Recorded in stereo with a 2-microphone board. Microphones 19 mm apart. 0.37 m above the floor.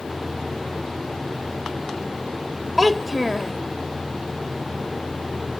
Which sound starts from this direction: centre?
A child speaking, at 2.8 s.